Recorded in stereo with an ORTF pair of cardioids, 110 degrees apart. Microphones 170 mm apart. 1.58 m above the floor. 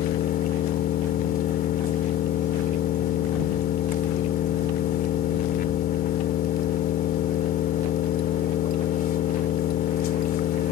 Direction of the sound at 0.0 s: 65° left.